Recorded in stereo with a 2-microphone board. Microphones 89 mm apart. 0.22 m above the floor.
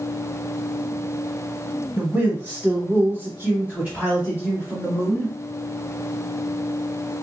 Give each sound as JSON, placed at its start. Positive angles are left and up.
{"t": 2.0, "sound": "a man speaking", "side_deg": -20, "distance_m": 1.2}